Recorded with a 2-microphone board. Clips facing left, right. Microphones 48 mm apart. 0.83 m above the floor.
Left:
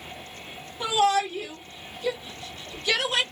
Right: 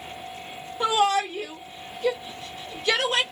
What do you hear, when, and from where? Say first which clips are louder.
0.8 s a shout: right 1 dB; 25° right (ahead or behind), 1.3 m